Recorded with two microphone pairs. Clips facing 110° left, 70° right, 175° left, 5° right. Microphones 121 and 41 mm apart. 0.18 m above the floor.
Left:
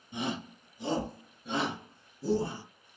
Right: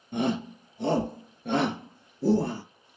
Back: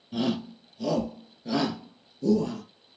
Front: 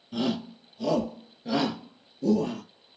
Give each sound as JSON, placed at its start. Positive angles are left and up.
{"t": 0.1, "sound": "a shout", "azimuth_deg": -95, "distance_m": 3.5}